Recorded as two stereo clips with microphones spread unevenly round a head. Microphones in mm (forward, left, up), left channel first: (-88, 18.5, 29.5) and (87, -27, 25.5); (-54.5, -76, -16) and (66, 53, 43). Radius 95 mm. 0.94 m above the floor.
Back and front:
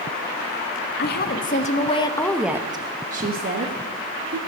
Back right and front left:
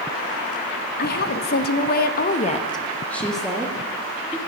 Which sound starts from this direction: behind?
A woman speaking, at 1.0 s.